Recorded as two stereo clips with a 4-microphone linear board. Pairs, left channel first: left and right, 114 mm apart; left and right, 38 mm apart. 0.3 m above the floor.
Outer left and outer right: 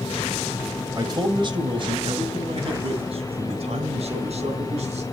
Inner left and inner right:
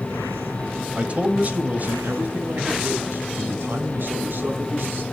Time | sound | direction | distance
0.9 | a man speaking | 35° right (ahead or behind) | 1.8 m